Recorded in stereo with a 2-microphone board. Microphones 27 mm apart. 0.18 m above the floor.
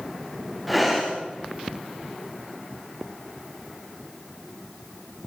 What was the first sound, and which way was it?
Breathing, 5° right (ahead or behind).